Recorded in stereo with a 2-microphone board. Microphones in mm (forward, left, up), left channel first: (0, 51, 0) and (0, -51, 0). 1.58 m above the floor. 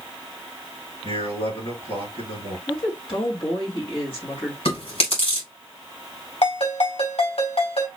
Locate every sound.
1.0 s a man speaking: 80° left, 5 m
2.7 s a woman speaking: 55° left (ahead or behind), 2.5 m
4.7 s chewing: 80° left, 3.5 m
6.4 s a ringtone: 85° left, 3.5 m